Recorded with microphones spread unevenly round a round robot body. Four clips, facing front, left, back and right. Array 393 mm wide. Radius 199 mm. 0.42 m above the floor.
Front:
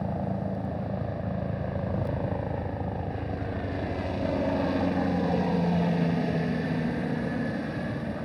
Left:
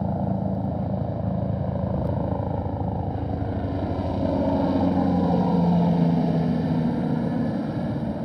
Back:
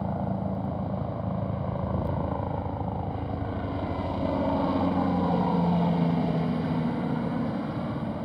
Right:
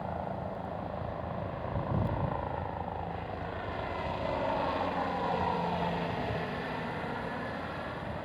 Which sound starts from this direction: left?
A helicopter, at 0.0 s.